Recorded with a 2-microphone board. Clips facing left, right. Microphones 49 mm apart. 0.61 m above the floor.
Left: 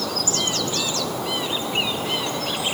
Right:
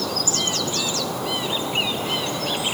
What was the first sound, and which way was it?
Only background noise.